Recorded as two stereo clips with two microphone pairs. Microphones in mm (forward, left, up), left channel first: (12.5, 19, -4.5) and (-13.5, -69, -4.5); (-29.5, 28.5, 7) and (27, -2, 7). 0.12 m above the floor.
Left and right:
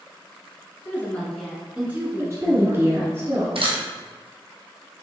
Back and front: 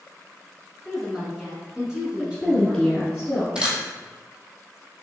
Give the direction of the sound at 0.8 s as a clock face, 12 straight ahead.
10 o'clock.